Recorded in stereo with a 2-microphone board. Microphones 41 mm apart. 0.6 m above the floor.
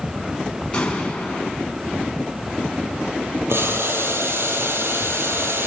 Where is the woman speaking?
No woman speaking in this recording.